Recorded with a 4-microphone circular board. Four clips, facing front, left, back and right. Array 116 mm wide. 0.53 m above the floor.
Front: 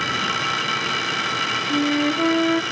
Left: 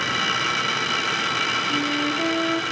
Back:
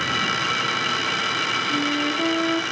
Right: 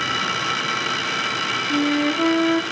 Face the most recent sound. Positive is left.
turn(degrees=-55)